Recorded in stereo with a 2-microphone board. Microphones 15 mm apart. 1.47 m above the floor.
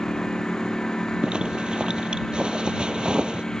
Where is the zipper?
75° right (ahead or behind).